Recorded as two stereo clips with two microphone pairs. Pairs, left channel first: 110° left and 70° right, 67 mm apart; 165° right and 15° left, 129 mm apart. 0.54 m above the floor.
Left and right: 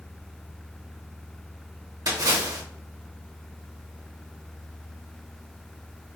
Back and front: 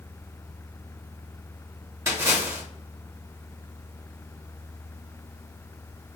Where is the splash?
50° right, 1.0 m.